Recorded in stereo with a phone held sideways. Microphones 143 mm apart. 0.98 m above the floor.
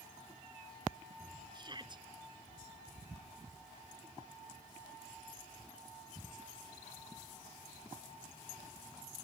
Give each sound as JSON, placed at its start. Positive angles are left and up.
{"t": 1.5, "sound": "a shout", "side_deg": -30}